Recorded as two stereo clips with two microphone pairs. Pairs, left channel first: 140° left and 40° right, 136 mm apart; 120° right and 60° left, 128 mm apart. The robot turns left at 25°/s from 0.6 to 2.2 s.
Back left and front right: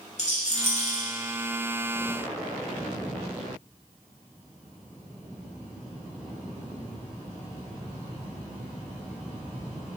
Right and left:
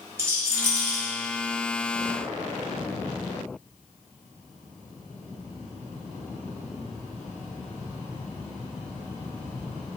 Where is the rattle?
125° left, 1.3 m; by 1.0 s 110° left, 1.3 m.